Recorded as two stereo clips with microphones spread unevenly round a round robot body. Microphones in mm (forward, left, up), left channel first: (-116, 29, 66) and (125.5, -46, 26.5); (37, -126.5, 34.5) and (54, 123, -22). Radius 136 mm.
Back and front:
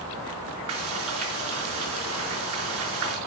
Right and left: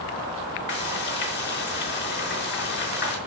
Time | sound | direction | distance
0.7 | frying | 50° right | 4.5 m